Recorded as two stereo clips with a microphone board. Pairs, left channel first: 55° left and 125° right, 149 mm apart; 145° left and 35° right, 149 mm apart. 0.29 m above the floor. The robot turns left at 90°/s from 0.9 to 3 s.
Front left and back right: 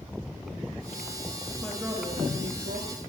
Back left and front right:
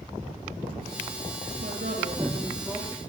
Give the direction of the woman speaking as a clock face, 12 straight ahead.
1 o'clock.